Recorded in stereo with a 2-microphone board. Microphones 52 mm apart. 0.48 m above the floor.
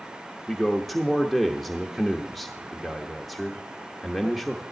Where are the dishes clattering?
No dishes clattering in this recording.